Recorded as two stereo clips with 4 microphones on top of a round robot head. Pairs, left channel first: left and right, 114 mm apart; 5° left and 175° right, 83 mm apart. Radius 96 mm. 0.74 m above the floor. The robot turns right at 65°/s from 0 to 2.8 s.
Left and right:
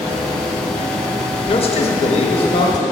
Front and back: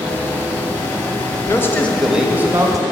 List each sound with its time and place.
1.5 s a man speaking: 60° left, 0.9 m; by 2.8 s 145° left, 0.9 m